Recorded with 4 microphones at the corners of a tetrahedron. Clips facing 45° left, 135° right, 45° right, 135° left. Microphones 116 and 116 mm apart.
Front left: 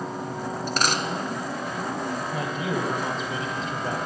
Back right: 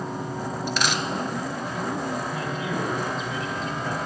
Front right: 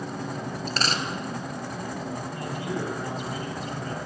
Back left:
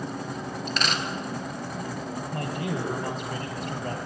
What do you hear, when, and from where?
0.7 s a dropped coin: 5° left, 1.0 m
2.3 s a man speaking: 100° left, 2.5 m